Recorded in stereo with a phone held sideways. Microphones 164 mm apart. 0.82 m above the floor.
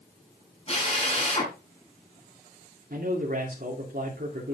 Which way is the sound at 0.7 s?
35° left (ahead or behind).